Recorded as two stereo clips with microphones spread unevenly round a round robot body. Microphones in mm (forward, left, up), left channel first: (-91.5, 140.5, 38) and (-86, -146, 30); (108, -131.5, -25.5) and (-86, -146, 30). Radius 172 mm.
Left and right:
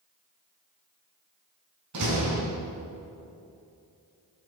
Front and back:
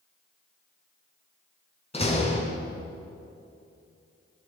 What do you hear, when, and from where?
1.9 s a door slam: 55° right, 5 m